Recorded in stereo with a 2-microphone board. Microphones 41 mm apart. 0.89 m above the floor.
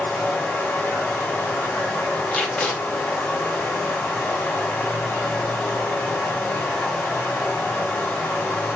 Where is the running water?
50° left (ahead or behind), 3 m.